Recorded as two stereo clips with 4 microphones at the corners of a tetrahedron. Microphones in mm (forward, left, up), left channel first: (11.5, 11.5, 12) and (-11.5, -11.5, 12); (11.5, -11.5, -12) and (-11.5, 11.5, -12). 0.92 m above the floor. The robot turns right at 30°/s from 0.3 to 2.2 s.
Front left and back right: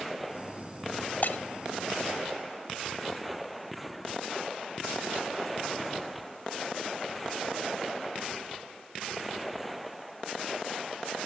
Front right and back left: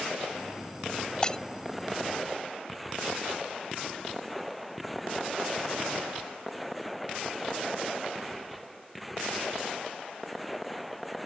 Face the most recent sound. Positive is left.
turn(degrees=45)